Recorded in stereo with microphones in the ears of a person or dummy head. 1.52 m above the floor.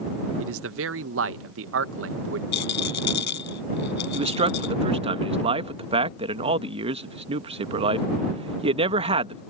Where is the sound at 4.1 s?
35° right (ahead or behind).